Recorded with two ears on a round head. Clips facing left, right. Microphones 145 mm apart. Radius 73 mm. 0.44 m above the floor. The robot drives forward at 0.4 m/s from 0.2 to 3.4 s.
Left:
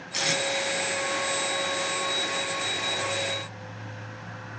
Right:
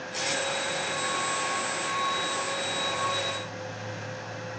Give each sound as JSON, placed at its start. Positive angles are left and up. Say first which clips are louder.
{"t": 0.1, "sound": "tape being pulled", "louder": "left 3 dB", "side_deg": 65, "distance_m": 3.5}